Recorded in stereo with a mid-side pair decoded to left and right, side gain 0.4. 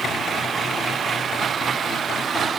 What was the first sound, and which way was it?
Only background noise.